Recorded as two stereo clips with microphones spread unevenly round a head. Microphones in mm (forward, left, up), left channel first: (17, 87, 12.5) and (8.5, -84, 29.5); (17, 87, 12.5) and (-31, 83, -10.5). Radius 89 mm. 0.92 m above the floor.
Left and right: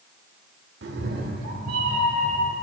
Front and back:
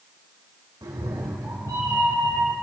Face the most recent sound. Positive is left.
turn(degrees=-145)